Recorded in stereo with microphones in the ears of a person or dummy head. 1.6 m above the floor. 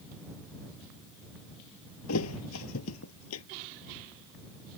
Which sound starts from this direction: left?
A thud, at 2.1 s.